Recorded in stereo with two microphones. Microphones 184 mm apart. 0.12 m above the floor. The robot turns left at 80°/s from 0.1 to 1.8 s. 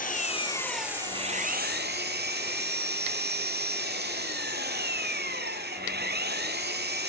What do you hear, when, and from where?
0.0 s an engine running: 55° left, 1.5 m; by 7.1 s 80° right, 1.5 m